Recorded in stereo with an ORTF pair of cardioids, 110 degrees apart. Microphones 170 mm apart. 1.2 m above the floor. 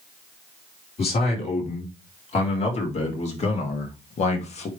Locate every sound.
1.0 s a man speaking: 40° left, 4 m; by 4.7 s 45° left, 1.9 m